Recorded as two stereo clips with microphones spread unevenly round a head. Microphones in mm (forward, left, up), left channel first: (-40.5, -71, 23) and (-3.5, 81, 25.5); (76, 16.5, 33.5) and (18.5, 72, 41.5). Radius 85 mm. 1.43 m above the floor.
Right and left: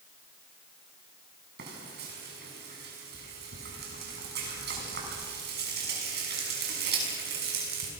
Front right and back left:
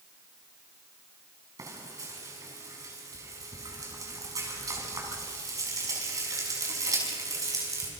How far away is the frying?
About 6.5 m.